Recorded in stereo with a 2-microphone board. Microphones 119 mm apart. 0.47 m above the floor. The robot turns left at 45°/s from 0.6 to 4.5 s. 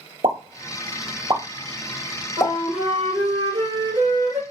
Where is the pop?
70° right (ahead or behind), 1.0 m; by 2.5 s 5° left (ahead or behind), 1.0 m.